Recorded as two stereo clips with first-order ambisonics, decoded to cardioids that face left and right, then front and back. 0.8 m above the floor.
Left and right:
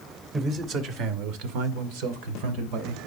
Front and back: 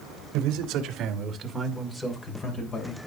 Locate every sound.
0.3 s a man speaking: 150° right, 2.5 m; by 3.0 s 60° right, 3 m